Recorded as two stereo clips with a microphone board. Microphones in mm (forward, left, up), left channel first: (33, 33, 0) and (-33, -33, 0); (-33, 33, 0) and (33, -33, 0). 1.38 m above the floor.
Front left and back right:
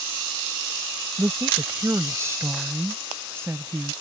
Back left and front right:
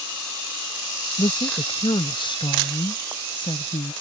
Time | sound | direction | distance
1.2 | a woman speaking | 170° left | ?